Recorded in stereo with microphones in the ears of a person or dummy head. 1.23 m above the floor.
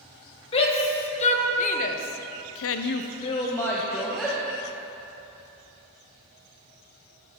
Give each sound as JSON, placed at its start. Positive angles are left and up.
{"t": 0.5, "sound": "a shout", "side_deg": 30, "distance_m": 2.0}